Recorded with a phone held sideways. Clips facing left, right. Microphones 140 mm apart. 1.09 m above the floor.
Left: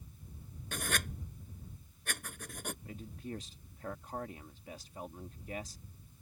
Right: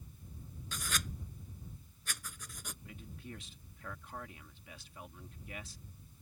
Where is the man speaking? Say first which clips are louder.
Left 5 dB; 40° left (ahead or behind).